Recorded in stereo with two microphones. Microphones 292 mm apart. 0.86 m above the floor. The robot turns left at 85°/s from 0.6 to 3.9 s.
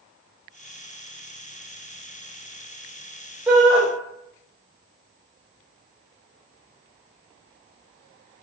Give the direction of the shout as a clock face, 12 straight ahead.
12 o'clock.